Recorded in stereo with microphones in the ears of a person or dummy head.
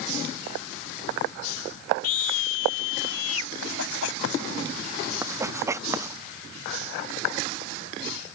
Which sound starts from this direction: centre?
Writing, at 5.2 s.